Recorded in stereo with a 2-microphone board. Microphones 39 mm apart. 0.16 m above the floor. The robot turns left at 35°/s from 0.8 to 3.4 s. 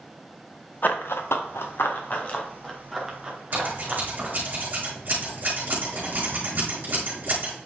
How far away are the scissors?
About 5 m.